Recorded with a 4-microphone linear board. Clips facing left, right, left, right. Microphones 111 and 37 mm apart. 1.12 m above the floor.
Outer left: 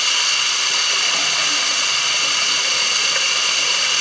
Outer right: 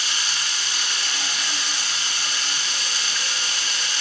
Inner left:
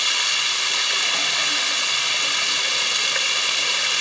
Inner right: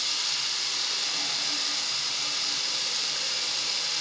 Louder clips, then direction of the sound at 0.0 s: Outer left 5 dB, inner left 10 dB; 80° left.